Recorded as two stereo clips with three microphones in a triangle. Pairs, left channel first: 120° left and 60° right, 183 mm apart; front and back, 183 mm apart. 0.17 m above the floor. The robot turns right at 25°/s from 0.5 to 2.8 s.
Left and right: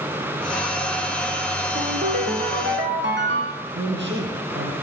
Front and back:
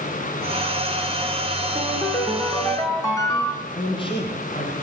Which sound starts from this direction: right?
A ringtone, at 1.8 s.